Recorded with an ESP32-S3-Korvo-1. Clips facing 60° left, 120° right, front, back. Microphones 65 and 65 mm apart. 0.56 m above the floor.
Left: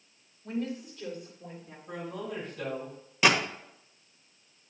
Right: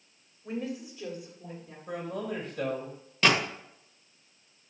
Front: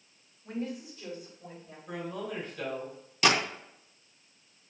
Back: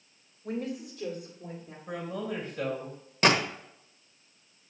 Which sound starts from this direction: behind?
A woman speaking, at 0.4 s.